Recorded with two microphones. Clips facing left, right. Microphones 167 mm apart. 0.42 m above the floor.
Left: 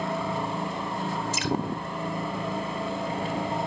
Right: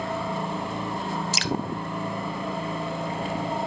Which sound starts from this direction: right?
Dripping, at 1.3 s.